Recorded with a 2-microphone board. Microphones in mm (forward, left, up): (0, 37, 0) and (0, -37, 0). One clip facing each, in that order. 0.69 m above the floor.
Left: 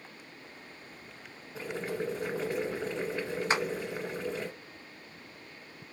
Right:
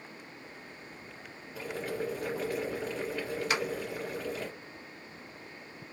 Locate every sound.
1.6 s boiling: 25° left (ahead or behind), 1.4 m
3.5 s a clap: 30° left (ahead or behind), 0.6 m